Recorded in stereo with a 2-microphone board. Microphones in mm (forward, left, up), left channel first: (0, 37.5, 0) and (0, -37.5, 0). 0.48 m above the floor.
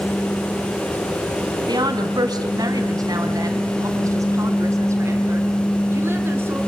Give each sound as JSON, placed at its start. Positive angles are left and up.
{"t": 1.7, "sound": "a woman speaking", "side_deg": -65, "distance_m": 3.5}